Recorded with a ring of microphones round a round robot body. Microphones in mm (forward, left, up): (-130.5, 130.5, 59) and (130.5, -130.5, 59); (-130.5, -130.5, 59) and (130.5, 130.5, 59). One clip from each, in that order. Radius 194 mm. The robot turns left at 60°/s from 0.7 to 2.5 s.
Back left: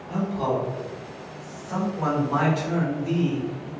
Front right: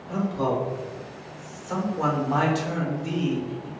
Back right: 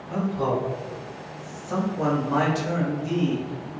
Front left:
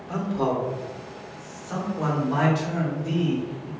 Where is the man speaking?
45° left, 1.6 m; by 3.7 s 65° right, 1.6 m.